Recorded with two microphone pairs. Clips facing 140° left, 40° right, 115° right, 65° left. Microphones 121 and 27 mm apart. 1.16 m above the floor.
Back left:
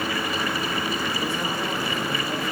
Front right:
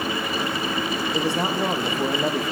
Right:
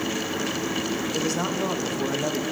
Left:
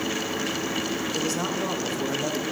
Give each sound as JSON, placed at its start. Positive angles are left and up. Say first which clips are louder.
{"t": 1.1, "sound": "a man speaking", "louder": "front right 4 dB, right 2 dB", "azimuth_deg": -35, "distance_m": 0.9}